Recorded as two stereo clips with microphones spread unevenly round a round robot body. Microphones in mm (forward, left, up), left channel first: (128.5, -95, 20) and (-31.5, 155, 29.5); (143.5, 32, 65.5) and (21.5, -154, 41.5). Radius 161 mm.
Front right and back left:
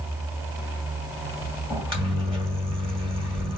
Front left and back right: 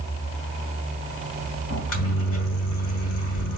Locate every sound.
1.7 s a microwave: 50° left, 1.7 m